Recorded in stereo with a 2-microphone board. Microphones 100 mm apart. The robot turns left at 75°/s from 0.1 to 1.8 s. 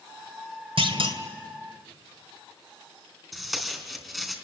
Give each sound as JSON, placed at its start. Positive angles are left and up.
{"t": 0.8, "sound": "a clunk", "azimuth_deg": -85, "distance_m": 2.0}
{"t": 3.3, "sound": "tape being pulled", "side_deg": 0, "distance_m": 3.5}